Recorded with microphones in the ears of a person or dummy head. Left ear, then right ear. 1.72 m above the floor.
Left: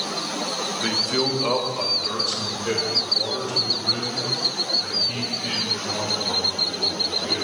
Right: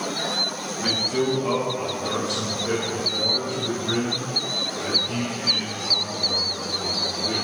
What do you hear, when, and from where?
0.8 s a man speaking: 35° left (ahead or behind), 1.1 m; by 7.3 s 65° left (ahead or behind), 6.5 m